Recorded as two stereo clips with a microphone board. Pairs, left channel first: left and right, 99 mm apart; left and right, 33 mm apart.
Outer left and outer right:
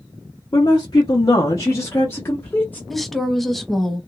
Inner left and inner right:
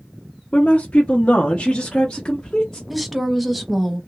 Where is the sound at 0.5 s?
35° left (ahead or behind), 0.8 m; by 2.8 s 20° left (ahead or behind), 1.6 m.